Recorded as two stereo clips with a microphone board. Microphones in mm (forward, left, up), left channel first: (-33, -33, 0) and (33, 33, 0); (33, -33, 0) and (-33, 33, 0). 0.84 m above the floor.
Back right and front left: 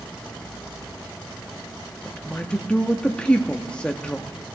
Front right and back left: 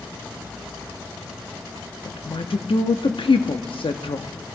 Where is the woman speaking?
55° right, 1.0 m.